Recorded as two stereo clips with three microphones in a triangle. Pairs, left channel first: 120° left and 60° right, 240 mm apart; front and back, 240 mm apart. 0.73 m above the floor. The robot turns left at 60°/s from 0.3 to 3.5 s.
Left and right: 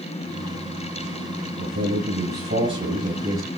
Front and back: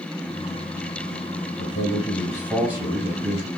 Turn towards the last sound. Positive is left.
turn(degrees=-145)